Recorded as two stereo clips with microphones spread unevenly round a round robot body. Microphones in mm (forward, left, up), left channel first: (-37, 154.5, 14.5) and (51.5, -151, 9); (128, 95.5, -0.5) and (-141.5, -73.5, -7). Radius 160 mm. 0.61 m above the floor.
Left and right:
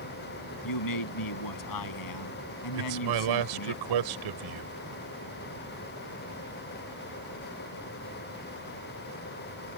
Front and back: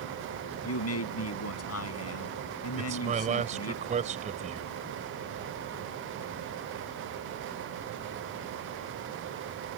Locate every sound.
0.6 s a man speaking: 80° left
2.8 s a man speaking: 80° right